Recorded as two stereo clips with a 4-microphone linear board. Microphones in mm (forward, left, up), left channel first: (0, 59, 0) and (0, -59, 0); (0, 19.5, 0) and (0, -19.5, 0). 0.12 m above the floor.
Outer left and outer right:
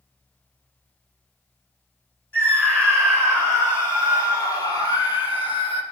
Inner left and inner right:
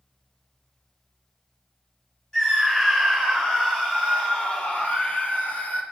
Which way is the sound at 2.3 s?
15° left (ahead or behind).